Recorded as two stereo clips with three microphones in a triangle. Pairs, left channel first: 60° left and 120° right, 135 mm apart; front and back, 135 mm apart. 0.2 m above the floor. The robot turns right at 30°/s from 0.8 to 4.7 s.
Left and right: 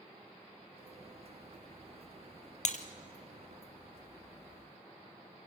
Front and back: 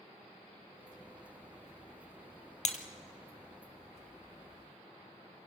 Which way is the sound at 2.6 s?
30° left.